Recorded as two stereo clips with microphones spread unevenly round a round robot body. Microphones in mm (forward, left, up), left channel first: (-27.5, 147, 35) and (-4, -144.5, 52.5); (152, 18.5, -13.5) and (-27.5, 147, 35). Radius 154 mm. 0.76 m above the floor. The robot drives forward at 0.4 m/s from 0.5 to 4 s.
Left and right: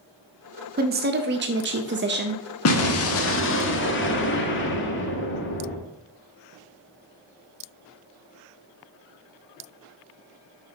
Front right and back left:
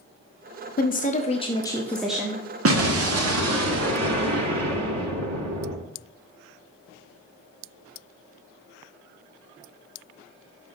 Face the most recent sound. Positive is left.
turn(degrees=145)